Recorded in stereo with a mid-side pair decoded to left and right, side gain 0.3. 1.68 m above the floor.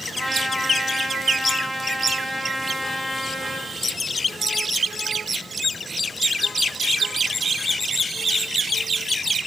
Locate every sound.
0.1 s a trumpet: 5° right, 2.5 m